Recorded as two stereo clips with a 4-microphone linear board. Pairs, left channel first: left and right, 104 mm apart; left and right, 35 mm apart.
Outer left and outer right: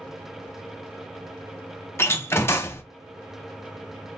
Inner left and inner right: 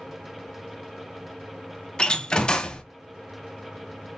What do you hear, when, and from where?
2.0 s a door slam: 25° left (ahead or behind), 0.7 m